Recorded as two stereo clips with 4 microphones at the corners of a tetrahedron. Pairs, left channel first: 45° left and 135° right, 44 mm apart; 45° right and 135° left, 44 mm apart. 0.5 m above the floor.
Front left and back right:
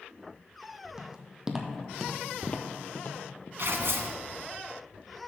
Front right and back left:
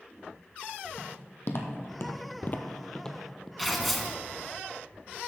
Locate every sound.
1.0 s footsteps: 70° right, 1.4 m; by 3.5 s 45° left, 0.9 m
3.6 s tearing paper: 135° right, 0.7 m